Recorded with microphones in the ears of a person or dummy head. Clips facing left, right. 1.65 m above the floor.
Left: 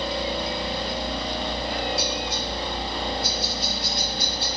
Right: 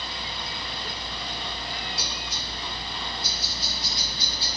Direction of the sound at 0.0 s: 45° left (ahead or behind).